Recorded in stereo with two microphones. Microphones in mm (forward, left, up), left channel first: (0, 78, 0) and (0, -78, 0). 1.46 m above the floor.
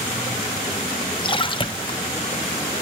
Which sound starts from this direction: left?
A splash, at 1.2 s.